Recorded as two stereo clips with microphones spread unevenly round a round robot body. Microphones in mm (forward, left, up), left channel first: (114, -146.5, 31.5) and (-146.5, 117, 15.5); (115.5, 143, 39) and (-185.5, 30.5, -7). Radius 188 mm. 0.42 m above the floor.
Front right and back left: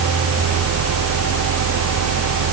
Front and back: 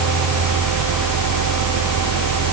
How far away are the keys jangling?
No keys jangling in this recording.